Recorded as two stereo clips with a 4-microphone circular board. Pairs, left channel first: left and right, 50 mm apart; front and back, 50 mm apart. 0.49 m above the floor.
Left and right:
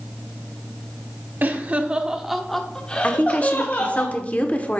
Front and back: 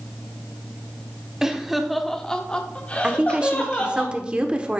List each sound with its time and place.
1.4 s laughter: 105° right, 1.1 m; by 4.0 s 50° left, 1.7 m
3.0 s a woman speaking: 130° left, 1.2 m